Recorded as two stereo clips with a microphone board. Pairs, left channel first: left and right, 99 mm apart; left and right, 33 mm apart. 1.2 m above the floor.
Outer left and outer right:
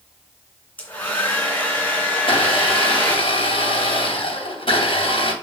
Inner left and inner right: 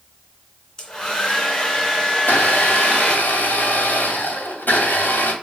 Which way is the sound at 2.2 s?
70° left (ahead or behind).